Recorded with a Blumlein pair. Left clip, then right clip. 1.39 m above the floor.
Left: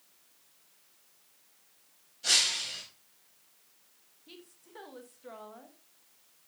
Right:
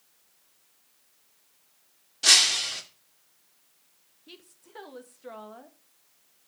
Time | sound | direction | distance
2.2 | breaking glass | 50° right | 2.5 m
4.3 | a woman speaking | 15° right | 1.7 m